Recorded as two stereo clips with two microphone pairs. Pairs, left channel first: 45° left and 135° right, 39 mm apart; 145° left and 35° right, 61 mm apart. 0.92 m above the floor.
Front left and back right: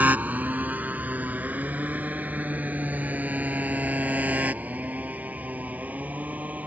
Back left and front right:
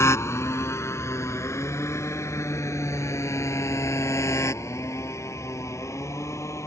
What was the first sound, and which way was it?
A motorcycle, 175° right.